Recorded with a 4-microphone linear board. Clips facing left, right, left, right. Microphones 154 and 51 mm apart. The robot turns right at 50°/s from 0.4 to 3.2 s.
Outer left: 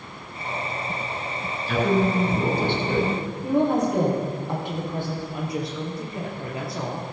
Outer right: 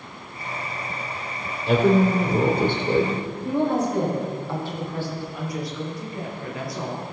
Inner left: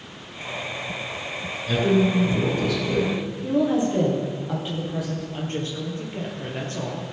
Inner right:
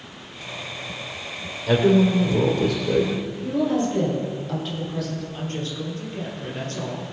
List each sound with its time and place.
1.7 s a woman speaking: 105° right, 3 m; by 3.2 s 25° right, 3 m
3.4 s a woman speaking: 20° left (ahead or behind), 4 m
5.3 s a woman speaking: 25° left (ahead or behind), 3 m